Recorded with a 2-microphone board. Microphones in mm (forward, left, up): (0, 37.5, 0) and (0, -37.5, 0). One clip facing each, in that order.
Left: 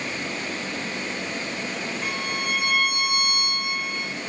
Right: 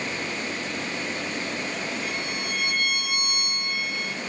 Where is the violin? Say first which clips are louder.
Left 2 dB; 55° left (ahead or behind), 6.5 m.